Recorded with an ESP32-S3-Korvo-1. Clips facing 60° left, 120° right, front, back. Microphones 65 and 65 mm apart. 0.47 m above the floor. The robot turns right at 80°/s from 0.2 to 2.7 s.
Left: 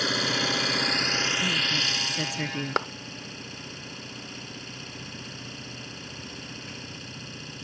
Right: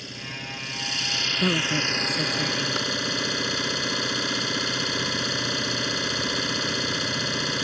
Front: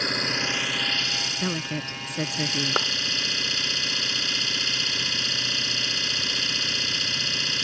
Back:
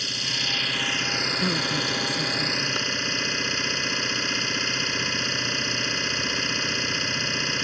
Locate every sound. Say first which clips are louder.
0.0 s an engine running: left 10 dB, front 4 dB; 45° left; by 7.6 s 115° right
1.4 s a woman speaking: right 4 dB, back 2 dB; 95° right; by 2.8 s 10° left
2.8 s a clap: left 2 dB, front 4 dB; 25° left